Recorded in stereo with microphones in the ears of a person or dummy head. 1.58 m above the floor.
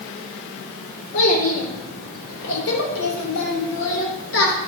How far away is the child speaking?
About 3 m.